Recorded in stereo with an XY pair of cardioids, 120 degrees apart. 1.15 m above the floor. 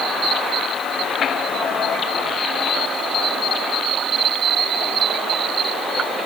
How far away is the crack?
I don't hear a crack.